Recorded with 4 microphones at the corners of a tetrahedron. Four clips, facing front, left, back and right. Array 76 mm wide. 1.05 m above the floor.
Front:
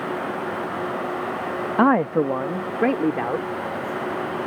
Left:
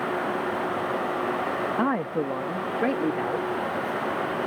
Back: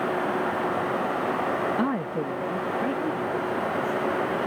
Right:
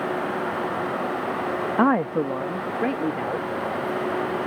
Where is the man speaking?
30° right; by 3.5 s 10° left.